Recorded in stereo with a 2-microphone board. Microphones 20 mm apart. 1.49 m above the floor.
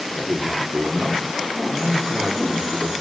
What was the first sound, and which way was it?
A man speaking, 80° right.